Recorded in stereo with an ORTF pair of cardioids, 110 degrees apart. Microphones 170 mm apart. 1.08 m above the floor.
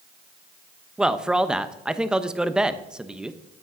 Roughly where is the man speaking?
Ahead.